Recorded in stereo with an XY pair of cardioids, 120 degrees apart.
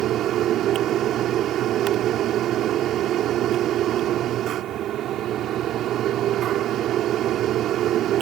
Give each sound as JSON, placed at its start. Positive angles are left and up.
{"t": 0.0, "sound": "a fan", "azimuth_deg": -65}